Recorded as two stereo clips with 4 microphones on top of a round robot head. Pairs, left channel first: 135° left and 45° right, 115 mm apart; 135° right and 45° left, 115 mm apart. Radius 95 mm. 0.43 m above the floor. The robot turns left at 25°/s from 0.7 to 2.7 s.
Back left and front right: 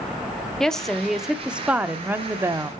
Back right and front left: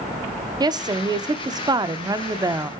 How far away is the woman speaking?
About 0.8 m.